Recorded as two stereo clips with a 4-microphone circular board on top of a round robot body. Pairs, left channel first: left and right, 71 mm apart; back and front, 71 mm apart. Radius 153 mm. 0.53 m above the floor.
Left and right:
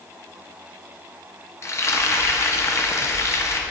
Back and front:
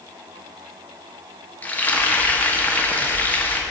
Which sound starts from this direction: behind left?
Frying, at 1.6 s.